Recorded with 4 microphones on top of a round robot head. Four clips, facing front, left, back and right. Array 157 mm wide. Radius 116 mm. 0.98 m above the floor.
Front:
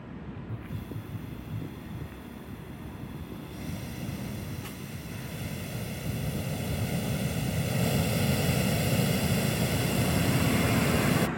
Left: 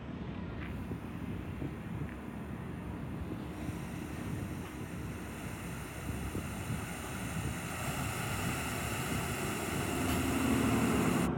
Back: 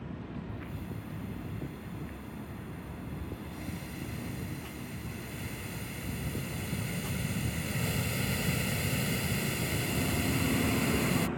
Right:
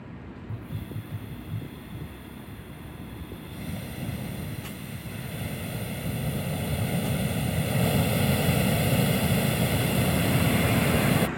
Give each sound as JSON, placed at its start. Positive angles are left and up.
{"t": 0.5, "sound": "a hiss", "azimuth_deg": -70}